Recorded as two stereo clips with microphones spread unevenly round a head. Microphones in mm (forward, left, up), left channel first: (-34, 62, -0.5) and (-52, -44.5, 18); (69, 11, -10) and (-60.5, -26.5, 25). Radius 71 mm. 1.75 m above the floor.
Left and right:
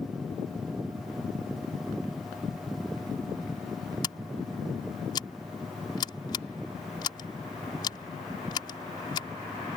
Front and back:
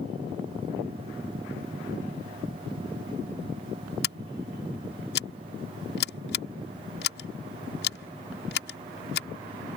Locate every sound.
4.0 s scissors: 15° left